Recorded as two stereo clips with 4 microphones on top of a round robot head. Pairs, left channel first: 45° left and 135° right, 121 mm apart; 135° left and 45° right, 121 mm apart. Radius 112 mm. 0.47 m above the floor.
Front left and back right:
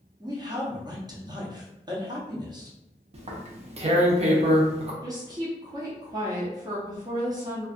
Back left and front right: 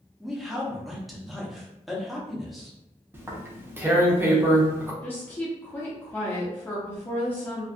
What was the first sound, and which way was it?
A man speaking, 135° right.